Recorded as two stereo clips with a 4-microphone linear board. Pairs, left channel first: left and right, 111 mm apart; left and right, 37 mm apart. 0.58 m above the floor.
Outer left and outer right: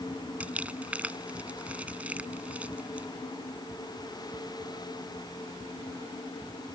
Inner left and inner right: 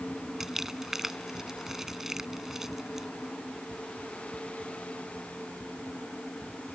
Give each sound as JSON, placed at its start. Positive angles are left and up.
{"t": 0.4, "sound": "crumpling", "side_deg": -10}